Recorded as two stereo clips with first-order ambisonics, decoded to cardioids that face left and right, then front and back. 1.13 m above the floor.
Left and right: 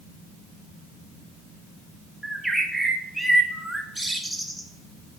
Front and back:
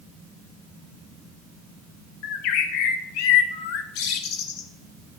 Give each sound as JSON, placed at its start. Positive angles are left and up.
{"t": 2.2, "sound": "a bird", "azimuth_deg": 0, "distance_m": 0.6}